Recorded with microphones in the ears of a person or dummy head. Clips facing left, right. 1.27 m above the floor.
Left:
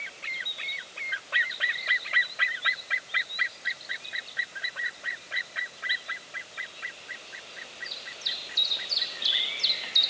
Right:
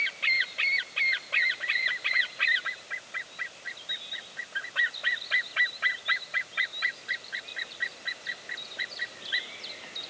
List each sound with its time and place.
Only background noise.